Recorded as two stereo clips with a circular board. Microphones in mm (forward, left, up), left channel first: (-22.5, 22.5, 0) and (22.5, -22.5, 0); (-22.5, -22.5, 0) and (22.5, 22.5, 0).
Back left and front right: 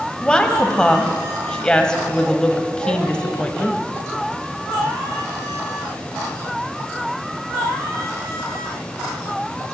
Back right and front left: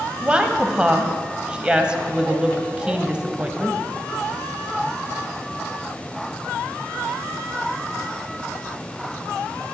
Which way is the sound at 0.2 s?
85° left.